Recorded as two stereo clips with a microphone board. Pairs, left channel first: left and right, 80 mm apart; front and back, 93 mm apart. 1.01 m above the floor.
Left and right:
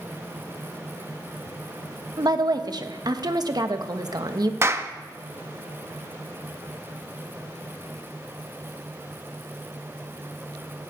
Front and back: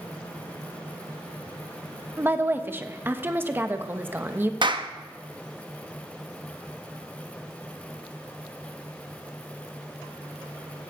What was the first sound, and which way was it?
A woman speaking, 115° right.